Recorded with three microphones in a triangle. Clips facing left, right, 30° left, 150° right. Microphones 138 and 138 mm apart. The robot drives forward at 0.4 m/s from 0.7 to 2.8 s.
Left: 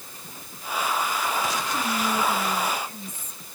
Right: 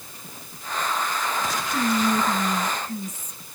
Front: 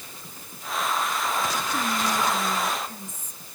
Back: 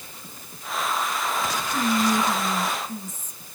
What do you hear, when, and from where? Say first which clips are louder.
1.7 s whispering: right 7 dB, back 7 dB; 55° right, 2.5 m; by 3.5 s 65° right, 2.5 m